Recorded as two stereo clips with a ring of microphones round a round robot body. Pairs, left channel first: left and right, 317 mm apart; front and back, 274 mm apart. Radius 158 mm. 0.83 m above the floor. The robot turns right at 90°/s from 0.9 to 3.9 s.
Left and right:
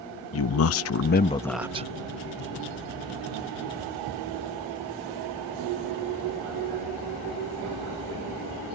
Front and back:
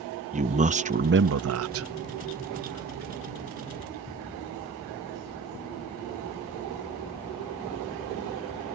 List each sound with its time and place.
0.3 s a man speaking: 120° left; by 1.9 s 150° right